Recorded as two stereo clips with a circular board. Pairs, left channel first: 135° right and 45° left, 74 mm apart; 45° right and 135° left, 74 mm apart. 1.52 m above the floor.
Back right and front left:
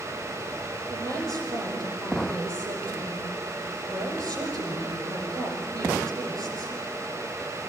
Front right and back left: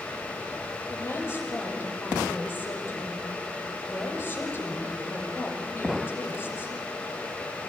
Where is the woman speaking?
15° left, 7 m.